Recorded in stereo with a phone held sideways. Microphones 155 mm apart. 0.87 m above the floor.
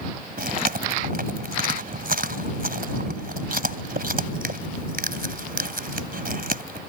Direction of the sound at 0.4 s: 75° right (ahead or behind).